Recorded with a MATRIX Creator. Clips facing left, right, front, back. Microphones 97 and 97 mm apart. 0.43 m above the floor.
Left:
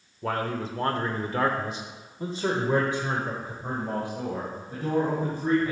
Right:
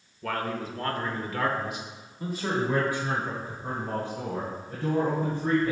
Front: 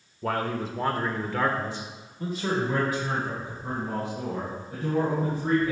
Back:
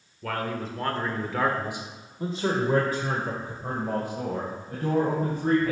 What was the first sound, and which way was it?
A man speaking, 40° left.